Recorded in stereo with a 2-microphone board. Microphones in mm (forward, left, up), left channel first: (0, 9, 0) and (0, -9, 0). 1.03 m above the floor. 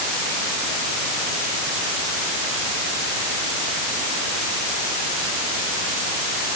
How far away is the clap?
No clap in this recording.